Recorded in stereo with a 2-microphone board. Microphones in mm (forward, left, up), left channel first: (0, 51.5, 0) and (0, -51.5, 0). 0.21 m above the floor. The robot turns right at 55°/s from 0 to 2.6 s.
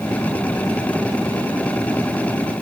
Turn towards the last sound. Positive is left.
No sound to turn to.